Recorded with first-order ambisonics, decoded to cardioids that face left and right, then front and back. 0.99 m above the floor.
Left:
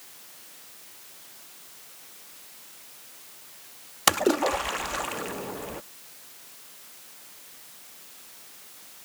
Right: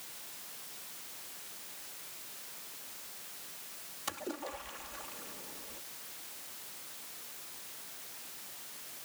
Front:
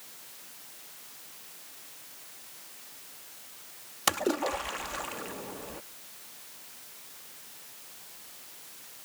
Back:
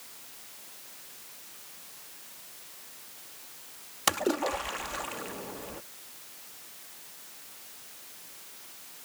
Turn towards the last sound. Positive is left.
turn(degrees=90)